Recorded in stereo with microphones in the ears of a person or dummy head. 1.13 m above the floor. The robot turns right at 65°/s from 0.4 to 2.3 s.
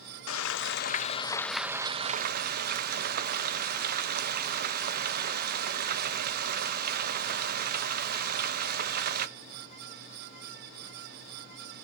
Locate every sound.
0.3 s frying: 110° left, 0.6 m; by 9.3 s 130° right, 0.6 m